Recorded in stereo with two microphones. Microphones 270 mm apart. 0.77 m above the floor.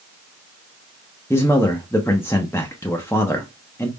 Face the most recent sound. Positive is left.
turn(degrees=10)  # may be behind; listen again after turning